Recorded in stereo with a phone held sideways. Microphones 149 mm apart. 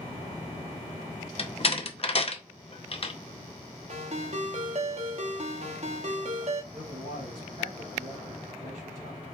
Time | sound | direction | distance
1.4 | a door slam | 40° left (ahead or behind) | 0.6 m
3.9 | a ringtone | 50° right (ahead or behind) | 0.9 m
6.7 | a man speaking | 70° right (ahead or behind) | 3 m